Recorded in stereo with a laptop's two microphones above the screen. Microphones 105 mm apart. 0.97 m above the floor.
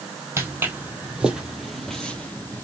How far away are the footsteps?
About 1.6 m.